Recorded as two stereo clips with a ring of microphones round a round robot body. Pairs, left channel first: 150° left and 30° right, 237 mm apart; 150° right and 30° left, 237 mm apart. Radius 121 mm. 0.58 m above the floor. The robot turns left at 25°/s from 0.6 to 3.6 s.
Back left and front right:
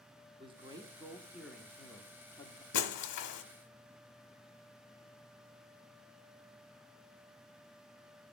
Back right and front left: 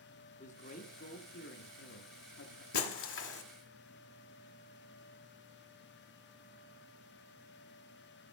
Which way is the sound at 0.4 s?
95° right.